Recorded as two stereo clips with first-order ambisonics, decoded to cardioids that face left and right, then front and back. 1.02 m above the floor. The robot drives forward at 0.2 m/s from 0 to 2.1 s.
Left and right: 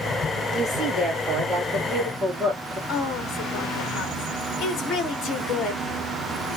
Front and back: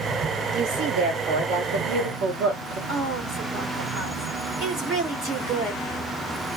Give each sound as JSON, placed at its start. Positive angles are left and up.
{"t": 0.5, "sound": "a woman speaking", "azimuth_deg": -170, "distance_m": 1.6}
{"t": 2.9, "sound": "a woman speaking", "azimuth_deg": 135, "distance_m": 1.5}